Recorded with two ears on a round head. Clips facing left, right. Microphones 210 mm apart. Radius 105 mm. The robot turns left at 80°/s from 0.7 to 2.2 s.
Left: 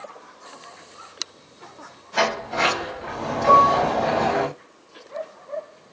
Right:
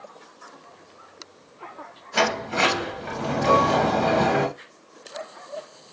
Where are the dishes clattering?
35° left (ahead or behind), 1.0 m.